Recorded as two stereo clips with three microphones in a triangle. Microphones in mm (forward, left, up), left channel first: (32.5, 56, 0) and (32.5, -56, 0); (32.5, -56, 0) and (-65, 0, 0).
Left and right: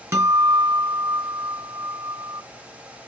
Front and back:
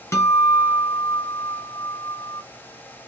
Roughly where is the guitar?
Ahead right.